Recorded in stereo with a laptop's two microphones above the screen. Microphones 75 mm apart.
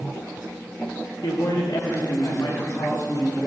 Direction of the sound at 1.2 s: 75° left (ahead or behind).